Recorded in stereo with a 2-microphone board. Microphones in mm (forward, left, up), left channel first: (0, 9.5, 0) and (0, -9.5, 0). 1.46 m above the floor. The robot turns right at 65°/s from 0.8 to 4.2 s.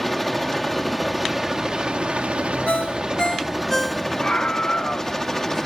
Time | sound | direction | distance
0.0 | a helicopter | 170° left | ?
2.7 | a ringtone | 95° left | ?
4.2 | a scream | 85° left | ?